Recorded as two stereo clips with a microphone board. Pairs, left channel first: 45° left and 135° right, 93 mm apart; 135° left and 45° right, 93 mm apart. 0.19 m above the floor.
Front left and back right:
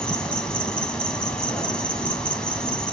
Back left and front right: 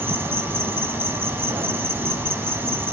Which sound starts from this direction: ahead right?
An insect, at 0.0 s.